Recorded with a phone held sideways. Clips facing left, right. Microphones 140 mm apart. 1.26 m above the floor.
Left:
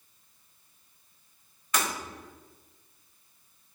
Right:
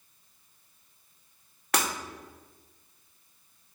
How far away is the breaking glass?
About 2.5 m.